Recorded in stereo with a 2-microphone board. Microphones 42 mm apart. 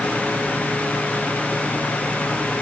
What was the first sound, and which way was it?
Only background noise.